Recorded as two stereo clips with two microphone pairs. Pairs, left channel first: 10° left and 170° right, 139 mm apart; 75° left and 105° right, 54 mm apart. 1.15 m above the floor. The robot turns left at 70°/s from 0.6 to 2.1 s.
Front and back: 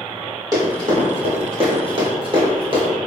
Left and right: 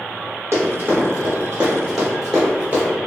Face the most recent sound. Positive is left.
turn(degrees=-150)